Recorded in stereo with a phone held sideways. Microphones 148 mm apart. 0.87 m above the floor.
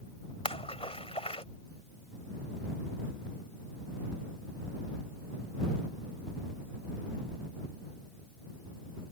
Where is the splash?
40° left (ahead or behind).